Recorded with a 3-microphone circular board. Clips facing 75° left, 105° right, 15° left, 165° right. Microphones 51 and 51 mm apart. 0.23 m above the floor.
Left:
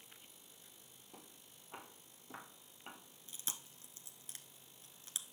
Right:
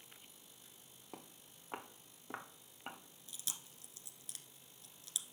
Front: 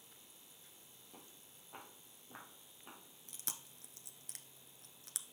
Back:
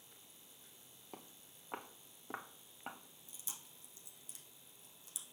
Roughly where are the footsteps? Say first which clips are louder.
Right 5 dB, back 6 dB; behind right.